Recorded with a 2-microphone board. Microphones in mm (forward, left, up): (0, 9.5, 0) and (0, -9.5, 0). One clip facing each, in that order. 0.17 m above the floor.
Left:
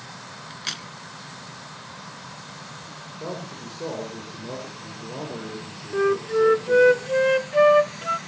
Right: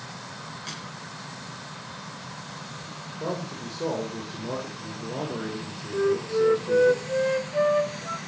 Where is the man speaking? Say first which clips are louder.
Right 2 dB; 15° right (ahead or behind), 6.5 m.